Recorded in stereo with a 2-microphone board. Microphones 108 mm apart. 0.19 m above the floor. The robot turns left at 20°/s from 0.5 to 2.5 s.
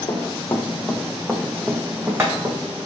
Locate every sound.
0.1 s running footsteps: 35° left (ahead or behind), 0.7 m; by 2.9 s 35° right (ahead or behind), 1.0 m